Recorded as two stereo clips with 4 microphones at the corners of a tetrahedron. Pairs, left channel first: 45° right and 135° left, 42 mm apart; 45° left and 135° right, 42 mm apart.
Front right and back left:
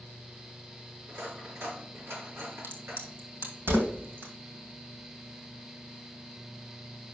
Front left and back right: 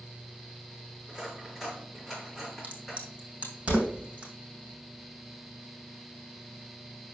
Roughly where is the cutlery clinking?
Behind left.